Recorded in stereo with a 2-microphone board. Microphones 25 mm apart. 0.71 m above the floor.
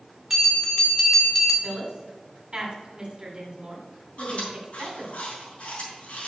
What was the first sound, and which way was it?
A bell, 15° right (ahead or behind).